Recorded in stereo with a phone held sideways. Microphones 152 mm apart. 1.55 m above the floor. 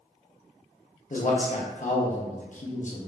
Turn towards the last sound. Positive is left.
turn(degrees=55)  # may be behind; listen again after turning